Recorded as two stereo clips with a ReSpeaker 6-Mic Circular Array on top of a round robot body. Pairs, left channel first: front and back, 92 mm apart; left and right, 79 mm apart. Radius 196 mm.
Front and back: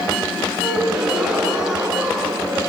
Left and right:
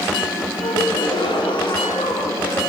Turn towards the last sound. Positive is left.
turn(degrees=95)